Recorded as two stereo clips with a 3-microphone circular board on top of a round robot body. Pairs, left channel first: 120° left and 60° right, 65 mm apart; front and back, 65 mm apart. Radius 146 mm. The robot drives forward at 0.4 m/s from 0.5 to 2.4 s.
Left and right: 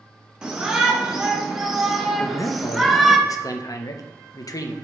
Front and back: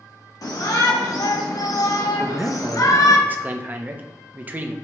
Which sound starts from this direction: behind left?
A man speaking, at 2.2 s.